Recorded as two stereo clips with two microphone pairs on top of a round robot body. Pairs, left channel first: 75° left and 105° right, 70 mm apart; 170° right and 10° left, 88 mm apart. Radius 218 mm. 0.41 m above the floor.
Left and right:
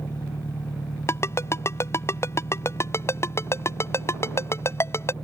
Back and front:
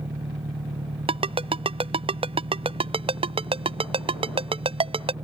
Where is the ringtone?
20° left.